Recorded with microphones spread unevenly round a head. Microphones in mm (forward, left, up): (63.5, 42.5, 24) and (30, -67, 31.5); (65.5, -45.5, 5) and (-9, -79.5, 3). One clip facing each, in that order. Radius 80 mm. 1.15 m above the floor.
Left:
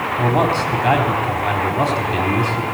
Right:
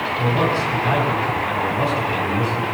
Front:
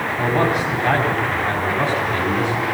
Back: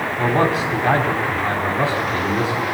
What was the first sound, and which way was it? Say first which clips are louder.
A man speaking: left 3 dB, back 1 dB; 120° left.